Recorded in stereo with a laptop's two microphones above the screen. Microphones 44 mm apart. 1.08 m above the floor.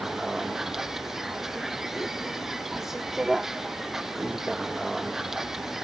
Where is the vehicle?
10° right (ahead or behind).